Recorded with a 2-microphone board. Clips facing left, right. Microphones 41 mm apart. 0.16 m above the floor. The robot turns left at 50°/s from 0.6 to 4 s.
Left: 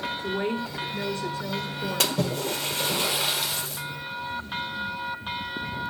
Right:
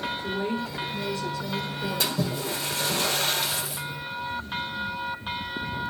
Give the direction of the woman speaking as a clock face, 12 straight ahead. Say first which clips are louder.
Left 3 dB; 9 o'clock.